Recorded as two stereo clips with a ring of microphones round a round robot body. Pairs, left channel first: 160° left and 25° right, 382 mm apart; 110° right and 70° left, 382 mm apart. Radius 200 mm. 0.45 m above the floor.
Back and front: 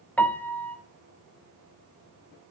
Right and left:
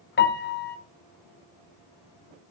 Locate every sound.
0.2 s a piano: 120° right, 1.5 m